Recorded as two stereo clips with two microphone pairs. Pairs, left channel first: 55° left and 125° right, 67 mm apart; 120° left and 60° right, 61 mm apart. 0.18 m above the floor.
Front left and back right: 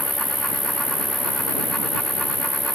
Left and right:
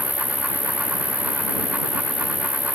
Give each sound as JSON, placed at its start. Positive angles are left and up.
{"t": 0.0, "sound": "an insect", "azimuth_deg": -35}